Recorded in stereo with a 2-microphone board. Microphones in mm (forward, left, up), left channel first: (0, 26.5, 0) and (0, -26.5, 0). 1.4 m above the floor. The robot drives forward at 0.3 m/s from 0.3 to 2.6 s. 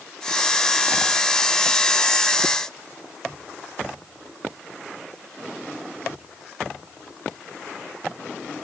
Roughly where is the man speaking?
No man speaking in this recording.